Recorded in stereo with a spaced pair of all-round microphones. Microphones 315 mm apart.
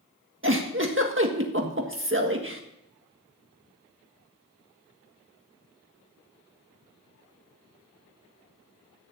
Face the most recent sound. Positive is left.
turn(degrees=-40)  # may be behind; listen again after turning